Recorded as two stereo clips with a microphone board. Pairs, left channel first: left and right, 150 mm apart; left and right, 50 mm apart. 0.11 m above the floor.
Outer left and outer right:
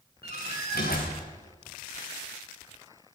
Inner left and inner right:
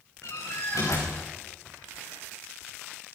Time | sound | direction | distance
0.2 | a door slam | 75° left (ahead or behind) | 6.5 m